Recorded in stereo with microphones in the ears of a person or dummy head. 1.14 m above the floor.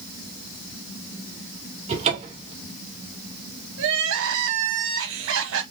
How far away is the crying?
About 1.5 m.